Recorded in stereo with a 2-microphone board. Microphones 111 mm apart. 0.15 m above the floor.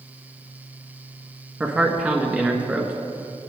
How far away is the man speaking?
About 1.4 m.